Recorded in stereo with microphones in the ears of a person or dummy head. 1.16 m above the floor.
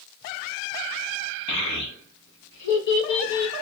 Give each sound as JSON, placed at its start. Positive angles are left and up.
{"t": 1.5, "sound": "a child speaking", "side_deg": 70, "distance_m": 1.1}